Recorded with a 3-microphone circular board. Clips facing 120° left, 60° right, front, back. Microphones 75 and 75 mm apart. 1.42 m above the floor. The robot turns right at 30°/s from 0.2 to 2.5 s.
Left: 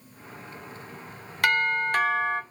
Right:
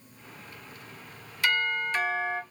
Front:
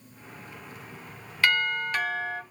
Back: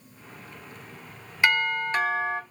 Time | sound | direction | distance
1.4 | a doorbell | 110° left | 0.8 m